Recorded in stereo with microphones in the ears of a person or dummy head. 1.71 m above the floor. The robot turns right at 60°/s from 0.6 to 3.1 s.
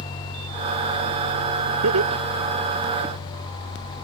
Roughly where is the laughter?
Right.